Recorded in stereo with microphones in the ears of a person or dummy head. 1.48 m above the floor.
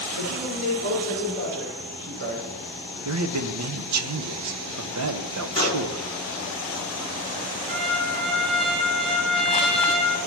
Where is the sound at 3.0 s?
75° right (ahead or behind), 1.2 m.